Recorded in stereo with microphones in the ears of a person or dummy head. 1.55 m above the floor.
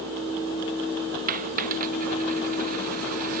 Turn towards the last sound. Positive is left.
turn(degrees=-45)  # may be behind; listen again after turning